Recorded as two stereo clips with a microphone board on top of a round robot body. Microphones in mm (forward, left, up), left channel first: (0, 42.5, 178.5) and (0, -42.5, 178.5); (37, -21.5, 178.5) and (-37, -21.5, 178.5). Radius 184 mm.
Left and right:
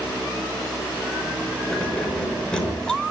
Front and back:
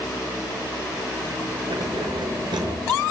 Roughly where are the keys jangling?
Behind.